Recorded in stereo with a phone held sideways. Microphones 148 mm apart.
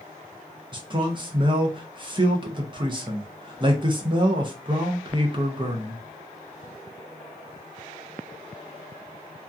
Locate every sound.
0.7 s a man speaking: 35° right (ahead or behind), 0.6 m